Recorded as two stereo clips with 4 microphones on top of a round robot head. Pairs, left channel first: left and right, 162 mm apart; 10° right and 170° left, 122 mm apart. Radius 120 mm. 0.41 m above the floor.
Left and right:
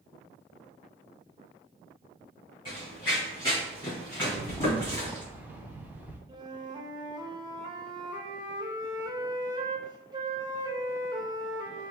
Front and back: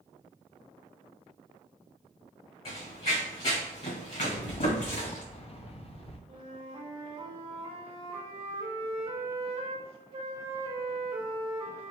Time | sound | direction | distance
2.6 | running footsteps | 25° left | 1.7 m
4.2 | a rattle | 15° right | 0.6 m
6.3 | a flute | 155° right | 0.8 m